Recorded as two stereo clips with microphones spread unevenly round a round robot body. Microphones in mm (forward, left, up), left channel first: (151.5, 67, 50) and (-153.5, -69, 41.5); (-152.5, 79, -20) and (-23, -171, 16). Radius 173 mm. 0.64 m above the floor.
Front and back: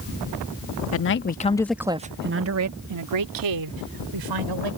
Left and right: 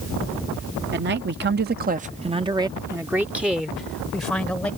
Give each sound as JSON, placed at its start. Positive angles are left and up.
{"t": 0.9, "sound": "a man speaking", "azimuth_deg": -10}